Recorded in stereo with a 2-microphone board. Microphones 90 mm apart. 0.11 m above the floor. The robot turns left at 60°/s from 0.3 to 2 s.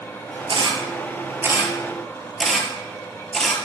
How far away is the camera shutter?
About 2.5 m.